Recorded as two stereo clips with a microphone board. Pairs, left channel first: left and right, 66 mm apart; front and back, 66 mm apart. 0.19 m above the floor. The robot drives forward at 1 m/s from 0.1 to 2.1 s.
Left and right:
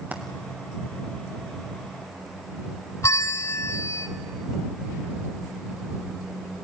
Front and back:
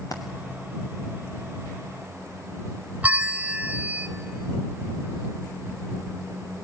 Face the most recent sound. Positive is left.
turn(degrees=120)